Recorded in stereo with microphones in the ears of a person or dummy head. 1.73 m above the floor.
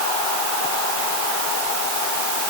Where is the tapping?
I don't hear tapping.